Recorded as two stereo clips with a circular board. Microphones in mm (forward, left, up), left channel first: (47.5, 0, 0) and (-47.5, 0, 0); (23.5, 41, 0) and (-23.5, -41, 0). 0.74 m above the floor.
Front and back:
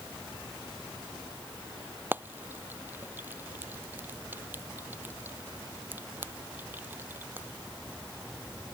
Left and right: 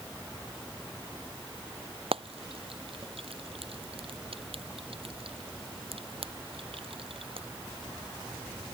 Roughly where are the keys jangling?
No keys jangling in this recording.